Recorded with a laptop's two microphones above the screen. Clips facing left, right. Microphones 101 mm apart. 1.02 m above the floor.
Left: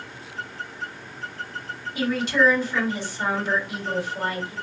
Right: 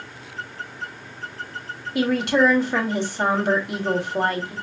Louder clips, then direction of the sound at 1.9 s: Right 3 dB; 65° right (ahead or behind).